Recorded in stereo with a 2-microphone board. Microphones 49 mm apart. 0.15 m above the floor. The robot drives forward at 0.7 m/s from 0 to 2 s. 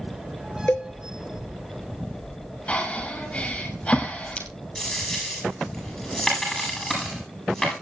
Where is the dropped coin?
5° left (ahead or behind), 9 m.